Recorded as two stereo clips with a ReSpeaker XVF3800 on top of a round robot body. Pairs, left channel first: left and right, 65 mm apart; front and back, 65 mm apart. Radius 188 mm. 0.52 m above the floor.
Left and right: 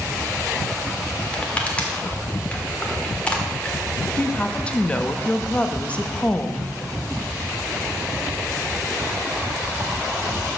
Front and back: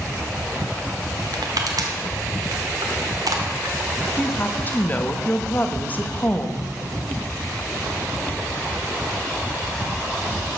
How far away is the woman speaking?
About 1.1 m.